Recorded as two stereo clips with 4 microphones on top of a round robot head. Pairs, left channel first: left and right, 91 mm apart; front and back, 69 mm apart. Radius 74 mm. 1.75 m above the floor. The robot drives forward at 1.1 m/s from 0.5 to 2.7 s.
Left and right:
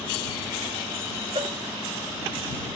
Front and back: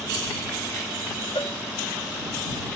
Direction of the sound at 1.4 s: 50° right.